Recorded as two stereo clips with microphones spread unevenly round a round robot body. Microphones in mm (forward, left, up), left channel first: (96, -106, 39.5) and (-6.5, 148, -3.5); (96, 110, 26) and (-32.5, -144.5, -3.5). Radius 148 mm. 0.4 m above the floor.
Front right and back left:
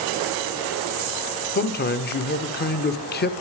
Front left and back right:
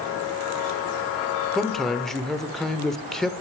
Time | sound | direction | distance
1.6 | a man speaking | 35° right | 0.8 m